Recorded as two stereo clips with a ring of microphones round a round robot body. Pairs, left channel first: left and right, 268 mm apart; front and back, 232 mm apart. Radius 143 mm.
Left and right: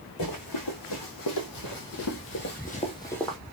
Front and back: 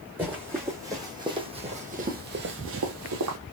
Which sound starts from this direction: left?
Running footsteps, at 0.2 s.